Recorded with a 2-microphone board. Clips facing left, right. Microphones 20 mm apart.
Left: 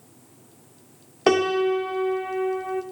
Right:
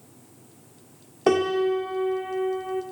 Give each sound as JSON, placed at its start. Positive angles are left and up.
{"t": 1.3, "sound": "a piano", "side_deg": 30, "distance_m": 1.7}